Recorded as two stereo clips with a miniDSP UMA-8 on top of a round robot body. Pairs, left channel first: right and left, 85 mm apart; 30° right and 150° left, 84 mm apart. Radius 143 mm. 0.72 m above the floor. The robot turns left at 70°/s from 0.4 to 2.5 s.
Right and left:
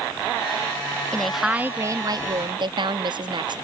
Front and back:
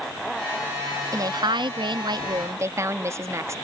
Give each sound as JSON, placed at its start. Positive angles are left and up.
{"t": 1.1, "sound": "a woman speaking", "azimuth_deg": -165}